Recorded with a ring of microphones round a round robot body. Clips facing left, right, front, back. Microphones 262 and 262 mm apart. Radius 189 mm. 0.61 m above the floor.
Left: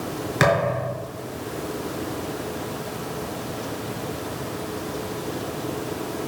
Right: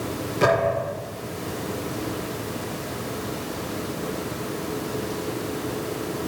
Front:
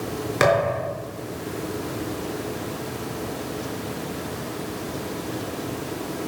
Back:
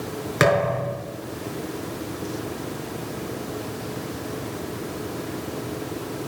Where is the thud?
115° left, 5 m.